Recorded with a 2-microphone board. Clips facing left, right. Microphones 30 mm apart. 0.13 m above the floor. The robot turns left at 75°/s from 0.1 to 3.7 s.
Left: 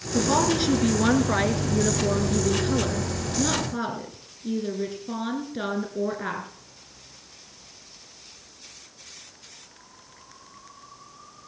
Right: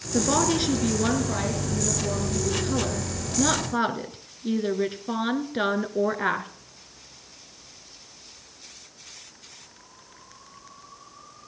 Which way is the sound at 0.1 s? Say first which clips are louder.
Left 1 dB; 135° right.